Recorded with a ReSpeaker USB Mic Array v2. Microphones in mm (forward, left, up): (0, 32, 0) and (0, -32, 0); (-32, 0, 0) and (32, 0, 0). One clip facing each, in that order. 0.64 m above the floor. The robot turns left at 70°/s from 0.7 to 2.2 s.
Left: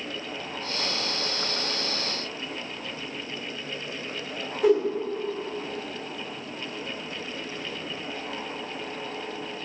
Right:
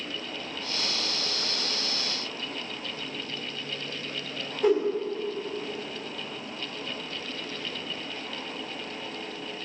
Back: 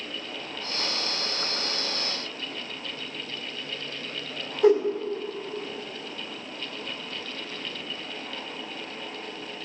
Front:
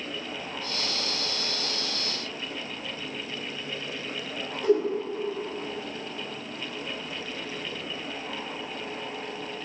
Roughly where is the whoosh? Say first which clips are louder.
Left 2 dB, back 4 dB; behind.